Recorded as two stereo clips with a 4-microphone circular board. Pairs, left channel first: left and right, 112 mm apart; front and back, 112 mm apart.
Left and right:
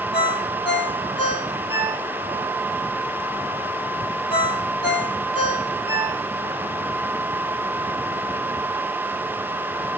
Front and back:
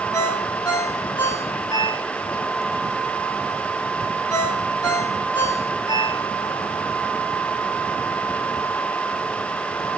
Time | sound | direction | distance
0.1 | a ringtone | 50° left | 2.5 m